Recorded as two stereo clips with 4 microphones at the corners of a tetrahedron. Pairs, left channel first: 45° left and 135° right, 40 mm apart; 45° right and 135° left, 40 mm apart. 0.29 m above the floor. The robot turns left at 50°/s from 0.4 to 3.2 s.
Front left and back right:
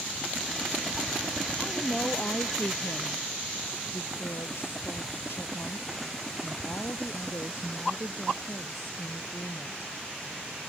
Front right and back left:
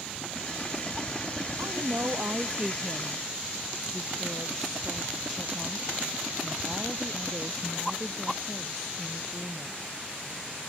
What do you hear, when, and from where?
1.6 s a woman speaking: 120° left; by 9.9 s 40° left